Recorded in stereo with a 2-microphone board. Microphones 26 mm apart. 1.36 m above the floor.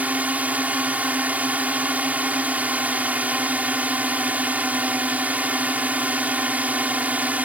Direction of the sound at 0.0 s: 80° right.